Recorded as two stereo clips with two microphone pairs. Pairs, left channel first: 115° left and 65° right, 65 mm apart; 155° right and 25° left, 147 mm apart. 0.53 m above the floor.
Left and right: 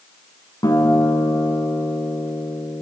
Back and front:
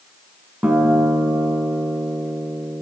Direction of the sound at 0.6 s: 105° left.